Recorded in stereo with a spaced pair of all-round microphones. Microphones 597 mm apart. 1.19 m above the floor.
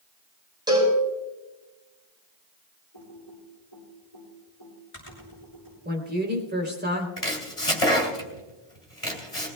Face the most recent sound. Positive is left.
turn(degrees=80)